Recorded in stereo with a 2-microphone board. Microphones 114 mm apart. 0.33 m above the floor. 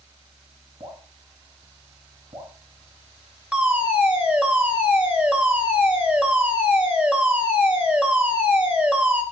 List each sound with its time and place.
0.8 s dripping: 50° right (ahead or behind), 3 m
3.5 s a fire alarm: 10° right (ahead or behind), 2.5 m